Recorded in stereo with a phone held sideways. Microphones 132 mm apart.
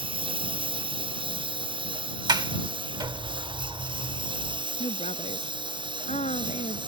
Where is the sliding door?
35° right (ahead or behind).